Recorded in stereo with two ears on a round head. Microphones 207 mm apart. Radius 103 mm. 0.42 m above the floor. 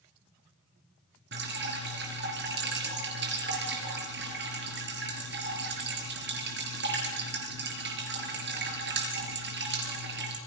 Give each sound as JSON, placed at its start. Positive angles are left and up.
{"t": 1.3, "sound": "dripping", "side_deg": -50, "distance_m": 4.5}